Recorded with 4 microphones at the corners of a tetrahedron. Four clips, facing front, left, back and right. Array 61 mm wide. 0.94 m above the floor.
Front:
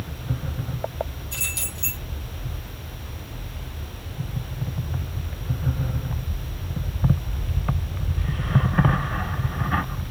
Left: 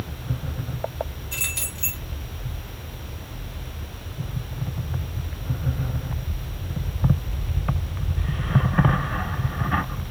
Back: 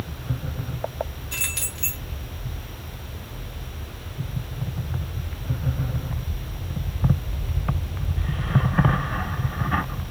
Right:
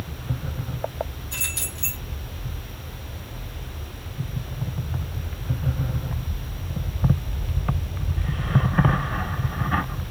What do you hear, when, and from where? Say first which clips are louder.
1.3 s keys jangling: left 1 dB, back 1 dB; 170° left, 2 m